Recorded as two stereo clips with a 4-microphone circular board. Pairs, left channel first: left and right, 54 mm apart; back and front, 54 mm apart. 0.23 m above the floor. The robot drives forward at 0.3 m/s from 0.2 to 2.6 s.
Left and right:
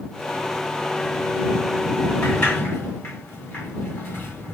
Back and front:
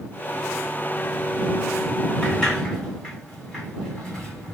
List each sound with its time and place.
2.2 s a sliding door: 105° left, 2 m